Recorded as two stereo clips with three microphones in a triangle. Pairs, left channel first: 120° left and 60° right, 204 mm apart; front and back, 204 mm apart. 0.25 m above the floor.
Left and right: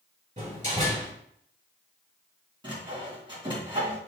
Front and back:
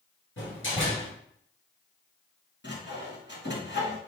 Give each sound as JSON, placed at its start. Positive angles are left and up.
{"t": 0.4, "sound": "a door slam", "azimuth_deg": -5, "distance_m": 3.5}
{"t": 2.6, "sound": "sawing", "azimuth_deg": 5, "distance_m": 3.0}